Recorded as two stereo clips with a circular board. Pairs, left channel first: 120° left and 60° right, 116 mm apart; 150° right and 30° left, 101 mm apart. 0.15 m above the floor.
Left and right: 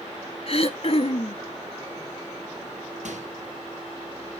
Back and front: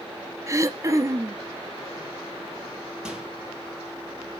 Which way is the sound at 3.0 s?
55° right.